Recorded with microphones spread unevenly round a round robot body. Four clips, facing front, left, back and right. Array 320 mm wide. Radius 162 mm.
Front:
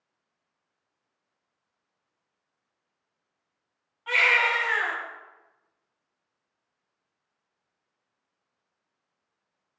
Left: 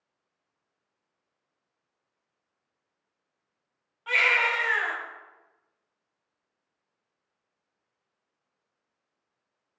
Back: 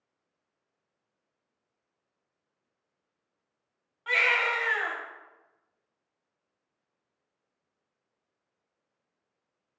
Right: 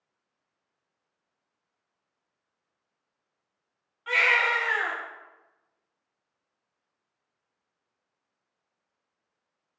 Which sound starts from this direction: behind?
A baby crying, at 4.1 s.